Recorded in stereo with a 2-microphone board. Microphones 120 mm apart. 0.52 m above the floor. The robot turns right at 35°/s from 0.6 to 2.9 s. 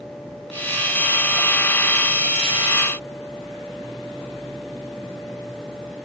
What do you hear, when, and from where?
Only background noise.